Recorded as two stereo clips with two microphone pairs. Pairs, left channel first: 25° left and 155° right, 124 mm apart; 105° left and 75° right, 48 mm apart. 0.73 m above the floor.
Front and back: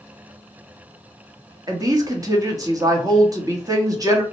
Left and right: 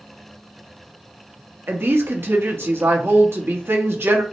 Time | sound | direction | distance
1.7 | a woman speaking | 95° right | 0.9 m